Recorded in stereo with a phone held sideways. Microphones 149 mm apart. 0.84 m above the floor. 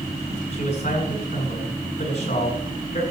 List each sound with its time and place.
0.5 s a man speaking: 50° left (ahead or behind), 7 m